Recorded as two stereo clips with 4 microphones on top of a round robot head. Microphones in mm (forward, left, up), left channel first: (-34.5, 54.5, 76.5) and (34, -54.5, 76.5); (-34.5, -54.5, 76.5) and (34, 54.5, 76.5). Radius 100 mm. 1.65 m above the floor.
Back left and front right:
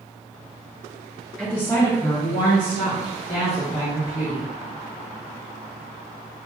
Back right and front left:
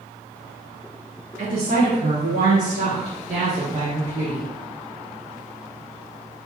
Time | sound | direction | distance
1.4 | a woman speaking | 30° left | 1.9 m